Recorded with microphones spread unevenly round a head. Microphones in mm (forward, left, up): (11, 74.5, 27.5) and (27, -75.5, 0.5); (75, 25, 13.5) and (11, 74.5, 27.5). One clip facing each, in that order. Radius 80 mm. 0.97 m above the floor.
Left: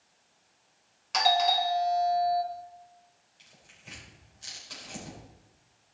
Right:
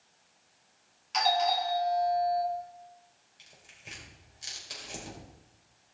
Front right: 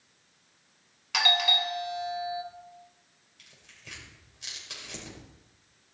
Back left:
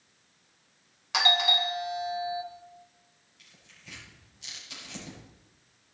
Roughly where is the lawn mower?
I don't hear a lawn mower.